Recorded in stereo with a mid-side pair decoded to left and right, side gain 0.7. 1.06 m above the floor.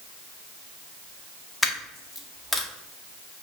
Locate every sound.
1.6 s a dropped coin: 15° left, 1.0 m